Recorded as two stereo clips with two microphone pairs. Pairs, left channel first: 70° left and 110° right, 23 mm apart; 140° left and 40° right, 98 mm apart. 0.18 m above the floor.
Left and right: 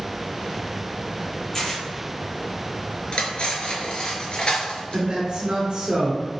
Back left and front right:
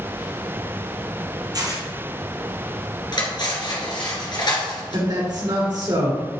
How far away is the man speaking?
About 2 m.